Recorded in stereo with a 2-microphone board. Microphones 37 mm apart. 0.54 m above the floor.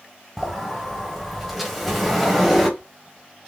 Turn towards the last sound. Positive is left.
turn(degrees=-5)  # may be behind; listen again after turning